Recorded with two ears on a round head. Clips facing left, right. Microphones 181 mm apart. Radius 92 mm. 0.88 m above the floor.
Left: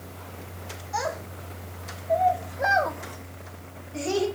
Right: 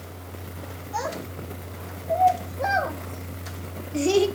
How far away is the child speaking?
About 2.0 m.